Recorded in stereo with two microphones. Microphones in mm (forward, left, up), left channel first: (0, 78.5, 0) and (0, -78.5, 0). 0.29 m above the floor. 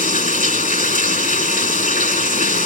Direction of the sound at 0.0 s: 60° left (ahead or behind).